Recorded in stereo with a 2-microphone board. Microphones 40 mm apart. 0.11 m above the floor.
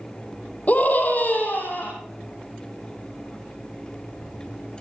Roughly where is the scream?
Left.